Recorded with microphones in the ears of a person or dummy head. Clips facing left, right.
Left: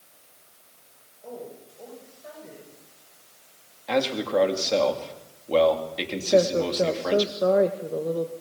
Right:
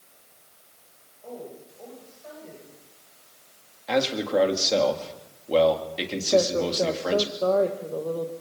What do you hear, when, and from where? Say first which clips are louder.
1.2 s a woman speaking: even; 10° left (ahead or behind), 9 m
3.9 s a man speaking: even; 5° right (ahead or behind), 3 m
6.3 s a woman speaking: left 2 dB; 20° left (ahead or behind), 1.7 m